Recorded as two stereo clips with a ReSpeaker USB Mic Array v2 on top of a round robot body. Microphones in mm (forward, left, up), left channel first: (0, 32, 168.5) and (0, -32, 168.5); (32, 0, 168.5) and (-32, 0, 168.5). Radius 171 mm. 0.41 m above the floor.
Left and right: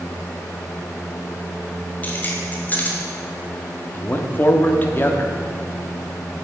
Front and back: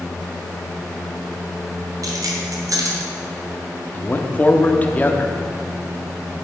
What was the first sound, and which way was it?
Keys jangling, 150° left.